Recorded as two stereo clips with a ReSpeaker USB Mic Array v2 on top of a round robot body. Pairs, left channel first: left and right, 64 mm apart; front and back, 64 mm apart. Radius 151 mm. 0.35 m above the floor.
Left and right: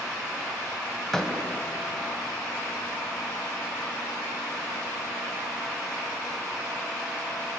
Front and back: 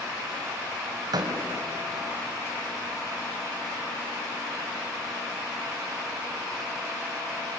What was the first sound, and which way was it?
A door slam, 175° left.